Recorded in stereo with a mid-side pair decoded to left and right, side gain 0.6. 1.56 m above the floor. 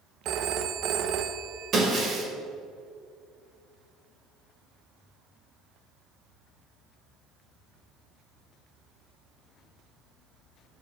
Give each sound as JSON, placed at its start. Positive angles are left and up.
{"t": 0.2, "sound": "a phone ringing", "azimuth_deg": -60, "distance_m": 1.2}
{"t": 1.7, "sound": "breaking glass", "azimuth_deg": -45, "distance_m": 5.0}